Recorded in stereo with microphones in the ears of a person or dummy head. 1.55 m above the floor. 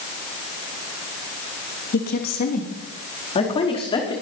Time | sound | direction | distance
1.9 | a woman speaking | 50° left (ahead or behind) | 3 m